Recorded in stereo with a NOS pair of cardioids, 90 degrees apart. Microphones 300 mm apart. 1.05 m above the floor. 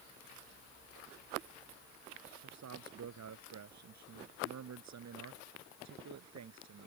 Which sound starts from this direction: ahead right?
A man speaking, at 2.4 s.